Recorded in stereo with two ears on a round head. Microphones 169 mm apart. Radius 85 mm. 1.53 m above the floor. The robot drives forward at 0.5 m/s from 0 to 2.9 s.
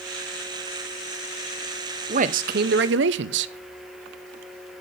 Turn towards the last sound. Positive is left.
turn(degrees=-60)  # may be behind; listen again after turning